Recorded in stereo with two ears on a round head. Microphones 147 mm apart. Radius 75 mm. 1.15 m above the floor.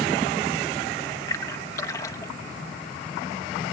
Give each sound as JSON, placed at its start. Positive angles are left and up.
{"t": 1.3, "sound": "a splash", "side_deg": 20}